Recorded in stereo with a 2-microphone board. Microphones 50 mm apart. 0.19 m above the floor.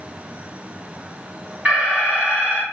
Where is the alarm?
30° right (ahead or behind), 1.8 m.